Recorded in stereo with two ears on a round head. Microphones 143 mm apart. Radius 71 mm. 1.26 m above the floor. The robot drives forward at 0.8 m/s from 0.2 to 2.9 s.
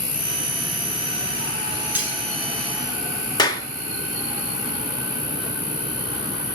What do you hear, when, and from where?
0.0 s an insect: 30° left (ahead or behind), 1.0 m; by 6.5 s 10° left (ahead or behind), 3 m
1.9 s cutlery clinking: 10° right (ahead or behind), 5.5 m
3.4 s a clap: 25° left (ahead or behind), 2.0 m